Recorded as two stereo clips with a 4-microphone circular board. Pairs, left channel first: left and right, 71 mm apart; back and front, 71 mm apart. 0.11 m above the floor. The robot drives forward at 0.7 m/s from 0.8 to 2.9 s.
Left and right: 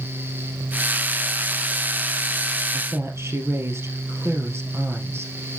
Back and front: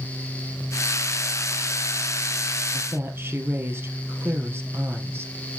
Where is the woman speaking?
45° right, 2.5 m; by 5.3 s 50° right, 2.5 m.